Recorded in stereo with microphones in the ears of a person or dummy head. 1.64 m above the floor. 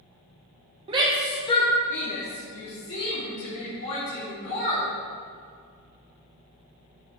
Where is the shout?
30° right (ahead or behind), 0.8 m; by 4.9 s 85° left, 4 m.